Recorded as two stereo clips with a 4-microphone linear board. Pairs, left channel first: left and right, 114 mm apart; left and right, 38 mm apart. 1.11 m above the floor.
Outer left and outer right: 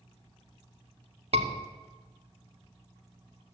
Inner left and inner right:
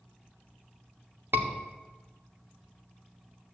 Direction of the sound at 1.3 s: 65° right (ahead or behind).